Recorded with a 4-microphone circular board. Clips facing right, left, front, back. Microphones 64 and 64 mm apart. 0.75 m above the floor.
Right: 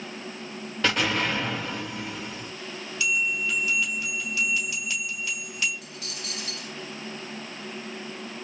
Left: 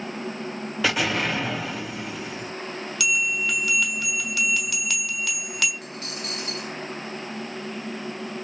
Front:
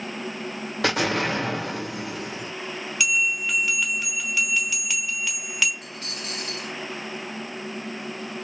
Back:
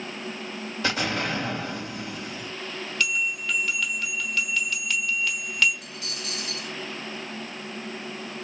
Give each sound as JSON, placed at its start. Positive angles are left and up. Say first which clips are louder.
{"t": 0.8, "sound": "an explosion", "louder": "left 1 dB, front 4 dB", "azimuth_deg": 5, "distance_m": 1.6}
{"t": 3.0, "sound": "a bell", "louder": "left 1 dB, front 3 dB", "azimuth_deg": 80, "distance_m": 1.3}
{"t": 5.8, "sound": "a dropped coin", "louder": "left 5 dB, front 1 dB", "azimuth_deg": 40, "distance_m": 2.0}